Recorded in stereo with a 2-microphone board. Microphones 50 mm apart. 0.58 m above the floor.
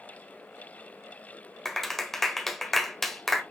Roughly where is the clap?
Centre.